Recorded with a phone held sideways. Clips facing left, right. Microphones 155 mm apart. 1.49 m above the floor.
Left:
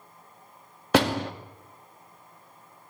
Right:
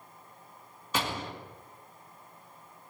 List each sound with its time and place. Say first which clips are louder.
0.9 s a door slam: left 11 dB; 75° left (ahead or behind), 2 m